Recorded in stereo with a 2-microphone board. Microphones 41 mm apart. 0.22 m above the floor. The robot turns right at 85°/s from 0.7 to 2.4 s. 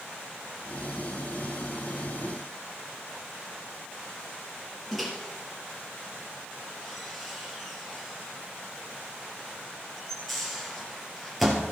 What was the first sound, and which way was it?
A microwave, centre (ahead or behind).